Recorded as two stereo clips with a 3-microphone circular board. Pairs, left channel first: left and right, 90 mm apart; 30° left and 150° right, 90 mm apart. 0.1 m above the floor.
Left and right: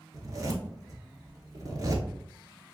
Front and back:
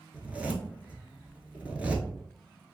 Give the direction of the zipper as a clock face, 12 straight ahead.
3 o'clock.